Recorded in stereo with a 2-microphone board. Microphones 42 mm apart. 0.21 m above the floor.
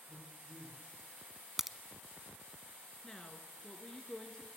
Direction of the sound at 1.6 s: 10° right (ahead or behind).